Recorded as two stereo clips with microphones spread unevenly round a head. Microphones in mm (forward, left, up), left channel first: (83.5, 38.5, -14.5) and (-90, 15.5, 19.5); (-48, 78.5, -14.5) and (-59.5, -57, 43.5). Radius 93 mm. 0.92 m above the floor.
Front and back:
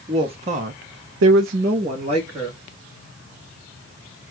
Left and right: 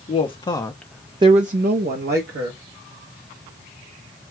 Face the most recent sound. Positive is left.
turn(degrees=-100)